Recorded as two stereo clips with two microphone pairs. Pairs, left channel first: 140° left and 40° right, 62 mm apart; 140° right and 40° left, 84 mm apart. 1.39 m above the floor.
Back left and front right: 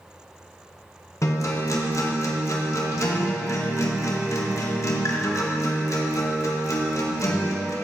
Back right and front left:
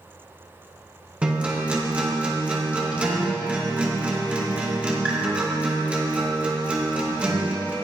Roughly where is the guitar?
Behind left.